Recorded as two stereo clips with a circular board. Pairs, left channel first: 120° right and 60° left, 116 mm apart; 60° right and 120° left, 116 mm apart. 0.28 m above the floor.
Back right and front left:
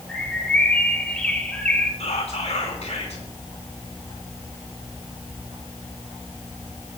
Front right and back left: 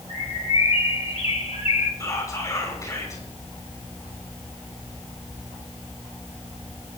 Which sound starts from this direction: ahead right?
A bird, at 0.1 s.